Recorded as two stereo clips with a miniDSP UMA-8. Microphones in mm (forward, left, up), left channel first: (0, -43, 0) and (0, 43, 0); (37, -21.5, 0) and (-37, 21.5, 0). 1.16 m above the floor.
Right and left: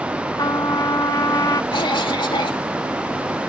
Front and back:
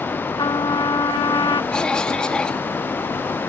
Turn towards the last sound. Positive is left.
turn(degrees=-110)